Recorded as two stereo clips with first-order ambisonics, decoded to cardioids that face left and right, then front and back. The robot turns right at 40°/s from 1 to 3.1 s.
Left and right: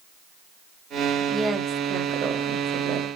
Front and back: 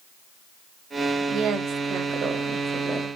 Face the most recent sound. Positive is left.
turn(degrees=-95)